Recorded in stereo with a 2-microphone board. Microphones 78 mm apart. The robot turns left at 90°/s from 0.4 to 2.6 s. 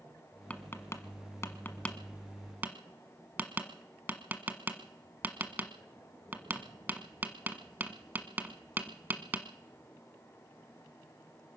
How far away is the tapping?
About 1.2 m.